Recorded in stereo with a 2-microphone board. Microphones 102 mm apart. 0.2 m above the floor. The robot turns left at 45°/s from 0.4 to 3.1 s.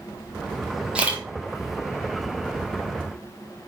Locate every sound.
0.9 s a camera shutter: 10° right (ahead or behind), 1.0 m; by 1.2 s 25° right (ahead or behind), 1.0 m